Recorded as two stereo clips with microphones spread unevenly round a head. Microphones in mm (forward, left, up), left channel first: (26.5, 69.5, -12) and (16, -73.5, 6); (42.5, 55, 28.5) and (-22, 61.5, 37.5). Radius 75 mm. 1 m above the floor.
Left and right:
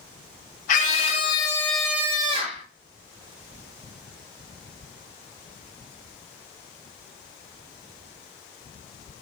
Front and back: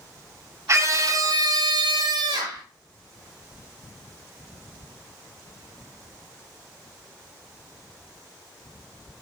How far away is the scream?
About 0.8 m.